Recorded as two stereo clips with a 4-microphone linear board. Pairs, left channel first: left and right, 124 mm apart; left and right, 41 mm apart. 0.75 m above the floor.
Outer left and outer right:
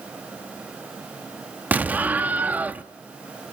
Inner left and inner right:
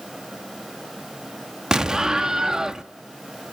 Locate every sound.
1.7 s an explosion: 15° right (ahead or behind), 0.6 m